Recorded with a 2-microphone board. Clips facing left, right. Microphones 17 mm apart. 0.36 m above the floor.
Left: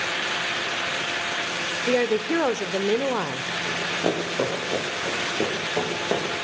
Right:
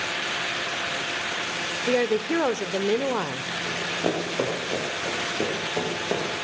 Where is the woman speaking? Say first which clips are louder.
Left 1 dB; 5° left (ahead or behind), 0.8 m.